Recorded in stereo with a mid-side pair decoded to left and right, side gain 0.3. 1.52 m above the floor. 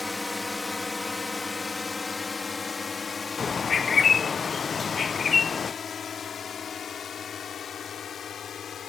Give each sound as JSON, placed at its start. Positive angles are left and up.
{"t": 0.0, "sound": "a drone", "azimuth_deg": 15}
{"t": 3.4, "sound": "a bird", "azimuth_deg": 55}